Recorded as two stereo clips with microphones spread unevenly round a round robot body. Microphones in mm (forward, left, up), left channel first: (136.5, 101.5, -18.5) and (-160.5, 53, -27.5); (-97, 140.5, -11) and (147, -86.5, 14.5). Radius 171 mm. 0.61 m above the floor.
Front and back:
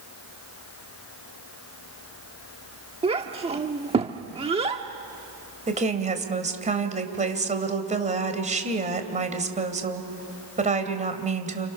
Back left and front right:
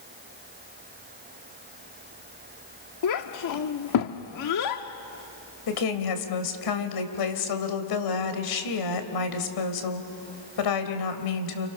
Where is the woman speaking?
125° left, 3 m.